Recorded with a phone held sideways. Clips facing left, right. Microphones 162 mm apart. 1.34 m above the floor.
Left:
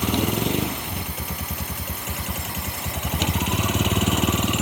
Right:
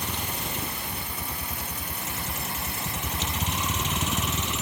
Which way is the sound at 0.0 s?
80° left.